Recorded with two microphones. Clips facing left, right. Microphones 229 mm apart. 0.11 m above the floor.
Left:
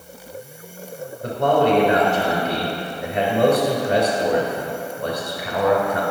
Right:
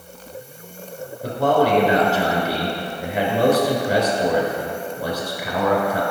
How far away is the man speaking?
About 1.5 m.